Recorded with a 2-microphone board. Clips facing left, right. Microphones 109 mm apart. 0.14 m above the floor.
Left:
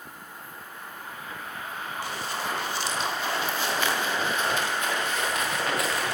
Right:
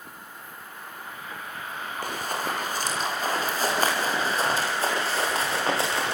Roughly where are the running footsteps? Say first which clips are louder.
Right 3 dB; right.